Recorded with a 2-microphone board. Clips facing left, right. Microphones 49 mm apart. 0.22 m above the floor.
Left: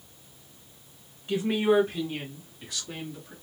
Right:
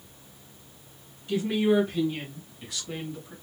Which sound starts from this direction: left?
A woman speaking, at 1.3 s.